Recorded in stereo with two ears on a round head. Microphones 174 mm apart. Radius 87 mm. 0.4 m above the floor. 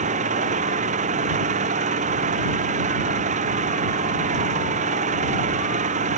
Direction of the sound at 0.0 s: 40° right (ahead or behind).